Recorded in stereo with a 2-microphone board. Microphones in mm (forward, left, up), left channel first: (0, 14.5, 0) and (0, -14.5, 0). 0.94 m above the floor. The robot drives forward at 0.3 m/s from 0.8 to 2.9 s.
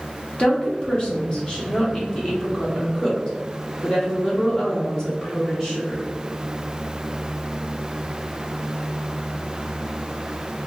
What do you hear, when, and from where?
0.4 s a woman speaking: 30° left (ahead or behind), 0.7 m; by 6.0 s 20° left (ahead or behind), 1.0 m